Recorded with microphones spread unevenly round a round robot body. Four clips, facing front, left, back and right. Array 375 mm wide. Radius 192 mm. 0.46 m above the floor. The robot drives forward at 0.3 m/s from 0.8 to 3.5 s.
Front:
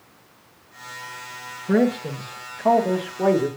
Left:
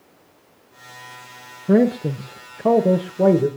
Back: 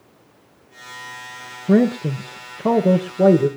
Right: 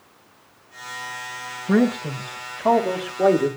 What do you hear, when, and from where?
1.7 s a man speaking: 135° left, 1.3 m; by 3.5 s 150° left, 1.6 m